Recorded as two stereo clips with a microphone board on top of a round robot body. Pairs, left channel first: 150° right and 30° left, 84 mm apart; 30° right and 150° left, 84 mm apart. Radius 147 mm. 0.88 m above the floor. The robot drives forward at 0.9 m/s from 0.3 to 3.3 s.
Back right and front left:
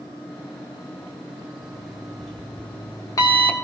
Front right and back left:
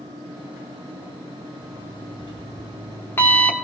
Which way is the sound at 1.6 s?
50° right.